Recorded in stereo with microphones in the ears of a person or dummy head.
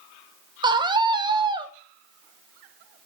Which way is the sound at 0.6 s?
20° right (ahead or behind).